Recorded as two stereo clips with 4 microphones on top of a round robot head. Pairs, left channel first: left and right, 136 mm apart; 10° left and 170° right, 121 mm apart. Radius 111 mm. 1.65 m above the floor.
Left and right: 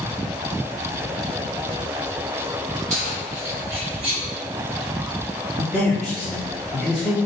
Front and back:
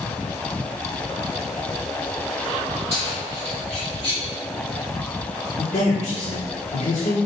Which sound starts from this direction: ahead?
A man speaking, at 5.6 s.